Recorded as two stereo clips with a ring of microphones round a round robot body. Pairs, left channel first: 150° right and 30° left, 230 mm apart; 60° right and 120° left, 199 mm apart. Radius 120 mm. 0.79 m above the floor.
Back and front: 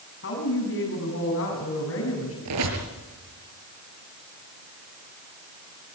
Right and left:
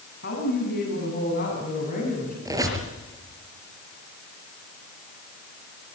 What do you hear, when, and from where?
0.2 s a woman speaking: 110° right, 8 m; by 2.4 s 120° right, 7 m
2.5 s a squeak: 45° left, 5 m